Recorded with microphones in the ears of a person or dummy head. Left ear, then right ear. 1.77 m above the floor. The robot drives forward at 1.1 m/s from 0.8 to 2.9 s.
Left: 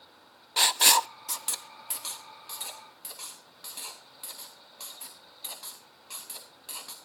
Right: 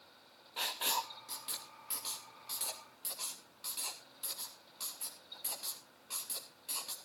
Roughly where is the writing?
Left.